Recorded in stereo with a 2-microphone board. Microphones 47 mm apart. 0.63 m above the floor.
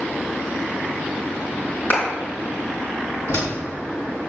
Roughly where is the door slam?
Left.